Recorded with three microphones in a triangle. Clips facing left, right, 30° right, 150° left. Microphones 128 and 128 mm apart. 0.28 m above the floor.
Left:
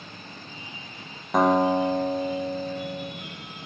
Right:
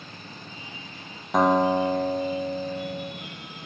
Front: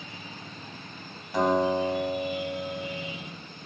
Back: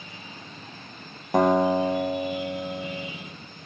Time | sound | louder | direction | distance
1.3 | a guitar | even, back 4 dB | straight behind | 0.9 m